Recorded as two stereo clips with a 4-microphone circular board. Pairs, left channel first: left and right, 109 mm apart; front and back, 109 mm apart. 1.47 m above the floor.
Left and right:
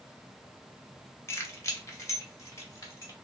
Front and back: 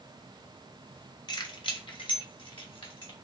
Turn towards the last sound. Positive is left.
turn(degrees=30)